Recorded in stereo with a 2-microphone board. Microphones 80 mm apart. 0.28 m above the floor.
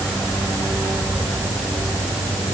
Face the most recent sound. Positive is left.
No sound to turn to.